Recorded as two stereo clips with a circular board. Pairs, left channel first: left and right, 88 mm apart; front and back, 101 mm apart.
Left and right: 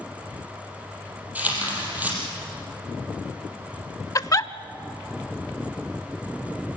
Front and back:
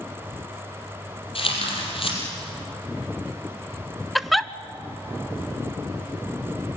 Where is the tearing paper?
20° right, 5.5 m.